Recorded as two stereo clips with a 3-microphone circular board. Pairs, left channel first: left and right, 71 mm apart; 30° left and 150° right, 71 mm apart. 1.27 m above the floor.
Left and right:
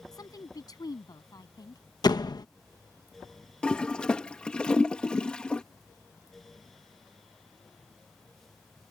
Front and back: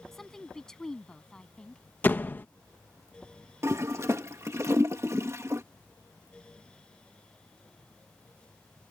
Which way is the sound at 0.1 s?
115° left.